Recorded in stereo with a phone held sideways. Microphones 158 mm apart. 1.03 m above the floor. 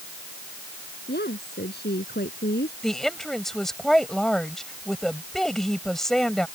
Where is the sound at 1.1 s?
75° left (ahead or behind); by 2.7 s 70° left (ahead or behind).